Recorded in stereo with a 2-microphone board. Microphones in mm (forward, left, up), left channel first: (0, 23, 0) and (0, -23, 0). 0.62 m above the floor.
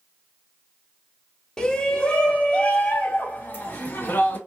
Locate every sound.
1.6 s a shout: 15° left (ahead or behind), 1.6 m; by 4.4 s 50° left (ahead or behind), 3 m